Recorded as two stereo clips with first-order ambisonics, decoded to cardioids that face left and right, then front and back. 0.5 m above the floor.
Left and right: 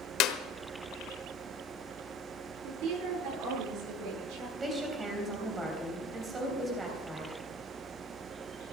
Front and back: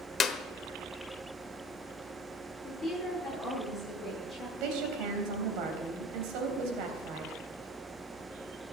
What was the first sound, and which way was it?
A clap, 65° left.